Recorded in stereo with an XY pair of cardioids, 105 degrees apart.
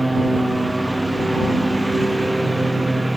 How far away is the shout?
No shout in this recording.